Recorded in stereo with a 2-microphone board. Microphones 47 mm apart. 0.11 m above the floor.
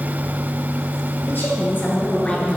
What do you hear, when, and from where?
1.3 s a woman speaking: 55° left (ahead or behind), 2.5 m; by 2.6 s 10° left (ahead or behind), 1.6 m